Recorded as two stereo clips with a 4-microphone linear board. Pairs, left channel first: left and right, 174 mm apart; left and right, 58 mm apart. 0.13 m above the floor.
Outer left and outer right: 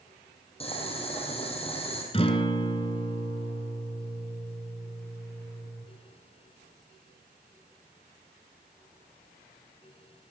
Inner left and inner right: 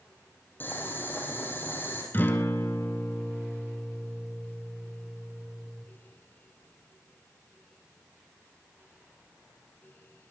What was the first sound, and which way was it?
Boiling, 35° left (ahead or behind).